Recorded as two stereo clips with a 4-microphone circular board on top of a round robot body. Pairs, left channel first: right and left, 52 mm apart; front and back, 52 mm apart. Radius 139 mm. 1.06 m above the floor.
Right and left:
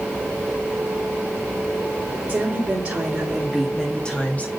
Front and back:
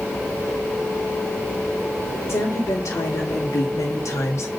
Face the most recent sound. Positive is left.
turn(degrees=-35)